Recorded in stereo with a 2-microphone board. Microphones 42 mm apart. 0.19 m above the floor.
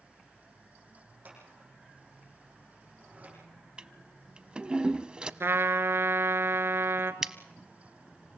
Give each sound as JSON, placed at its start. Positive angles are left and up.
{"t": 1.2, "sound": "scissors", "side_deg": -45, "distance_m": 9.0}
{"t": 3.8, "sound": "a toilet flushing", "side_deg": -20, "distance_m": 0.6}
{"t": 5.4, "sound": "a trumpet", "side_deg": -70, "distance_m": 1.1}
{"t": 7.2, "sound": "scissors", "side_deg": -15, "distance_m": 0.9}